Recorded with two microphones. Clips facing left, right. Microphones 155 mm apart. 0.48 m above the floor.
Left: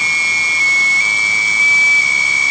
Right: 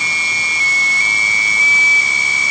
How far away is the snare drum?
I don't hear a snare drum.